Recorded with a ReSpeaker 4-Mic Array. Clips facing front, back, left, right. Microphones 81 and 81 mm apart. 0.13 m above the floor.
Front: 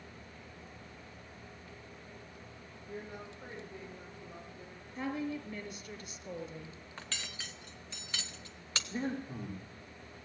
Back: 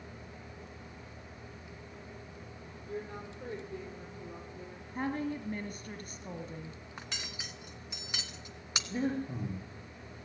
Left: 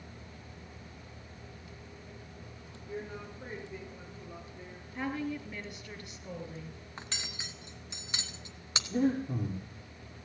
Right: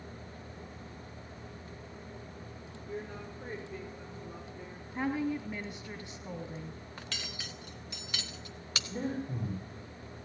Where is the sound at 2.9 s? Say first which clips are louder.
Back 4 dB, even; 175° left, 5.5 m.